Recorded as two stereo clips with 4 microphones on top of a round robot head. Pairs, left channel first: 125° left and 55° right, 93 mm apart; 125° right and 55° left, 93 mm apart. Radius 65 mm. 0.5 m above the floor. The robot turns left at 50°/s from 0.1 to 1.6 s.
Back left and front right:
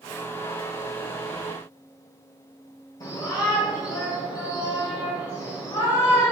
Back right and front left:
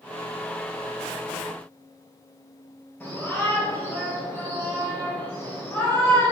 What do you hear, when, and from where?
3.0 s a shout: 160° left, 2.5 m